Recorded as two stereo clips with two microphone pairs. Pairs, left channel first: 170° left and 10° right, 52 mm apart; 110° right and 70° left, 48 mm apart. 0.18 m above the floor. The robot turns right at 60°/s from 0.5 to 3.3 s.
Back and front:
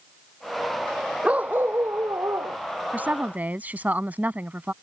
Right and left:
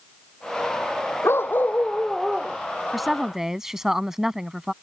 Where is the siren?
No siren in this recording.